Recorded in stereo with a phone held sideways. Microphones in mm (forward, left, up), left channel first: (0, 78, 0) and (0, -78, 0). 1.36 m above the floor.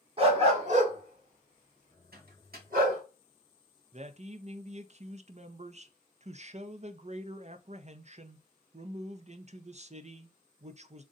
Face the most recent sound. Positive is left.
turn(degrees=-45)  # may be behind; listen again after turning